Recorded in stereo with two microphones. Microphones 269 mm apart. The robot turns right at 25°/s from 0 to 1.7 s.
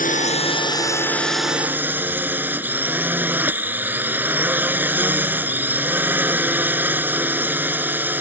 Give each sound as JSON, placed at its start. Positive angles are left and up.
{"t": 0.0, "sound": "a drone", "azimuth_deg": 145}